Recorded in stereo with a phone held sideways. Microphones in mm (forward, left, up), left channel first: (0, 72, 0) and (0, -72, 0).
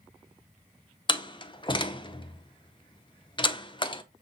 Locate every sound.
1.1 s a door slam: 35° left (ahead or behind), 0.6 m